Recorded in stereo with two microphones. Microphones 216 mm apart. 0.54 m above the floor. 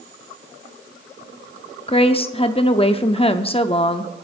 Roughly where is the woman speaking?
Left.